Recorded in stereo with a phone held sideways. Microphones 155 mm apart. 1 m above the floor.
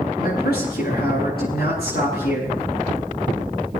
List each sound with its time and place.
0.2 s a man speaking: 85° left, 10 m